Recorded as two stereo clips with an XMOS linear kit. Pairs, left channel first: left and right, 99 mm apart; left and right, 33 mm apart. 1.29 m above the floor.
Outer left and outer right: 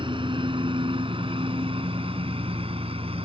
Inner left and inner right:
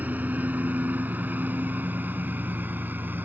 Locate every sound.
0.0 s a lawn mower: 60° right (ahead or behind); by 3.2 s 75° right (ahead or behind)